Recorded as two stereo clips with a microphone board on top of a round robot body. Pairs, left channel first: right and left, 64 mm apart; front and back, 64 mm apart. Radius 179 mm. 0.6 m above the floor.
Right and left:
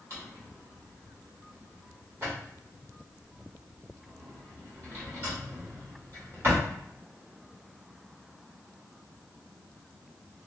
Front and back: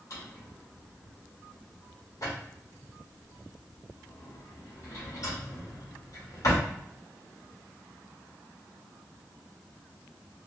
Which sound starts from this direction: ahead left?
A drawer, at 0.1 s.